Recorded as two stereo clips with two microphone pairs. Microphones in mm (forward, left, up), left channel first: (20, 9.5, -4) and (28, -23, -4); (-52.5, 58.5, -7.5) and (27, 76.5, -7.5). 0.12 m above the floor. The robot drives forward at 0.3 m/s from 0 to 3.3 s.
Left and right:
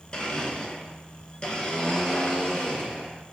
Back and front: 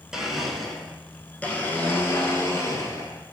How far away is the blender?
About 0.8 m.